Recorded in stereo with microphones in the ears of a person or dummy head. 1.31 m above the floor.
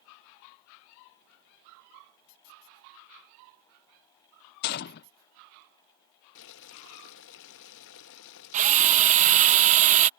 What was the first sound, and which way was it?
A gunshot, 55° left (ahead or behind).